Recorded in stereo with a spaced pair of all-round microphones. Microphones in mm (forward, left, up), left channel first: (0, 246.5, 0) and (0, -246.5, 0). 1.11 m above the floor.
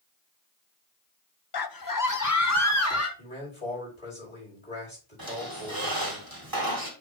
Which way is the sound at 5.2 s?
45° right (ahead or behind).